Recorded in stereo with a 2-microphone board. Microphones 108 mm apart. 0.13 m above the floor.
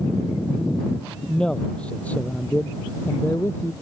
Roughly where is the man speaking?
Centre.